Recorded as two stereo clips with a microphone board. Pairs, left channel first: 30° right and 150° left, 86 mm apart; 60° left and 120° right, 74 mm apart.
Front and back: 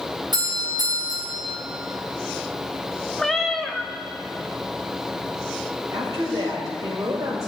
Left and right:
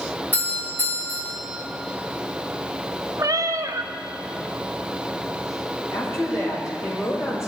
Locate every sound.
0.3 s a doorbell: 120° left, 4 m
3.2 s a cat meowing: 115° right, 0.7 m
5.9 s a woman speaking: 105° left, 5 m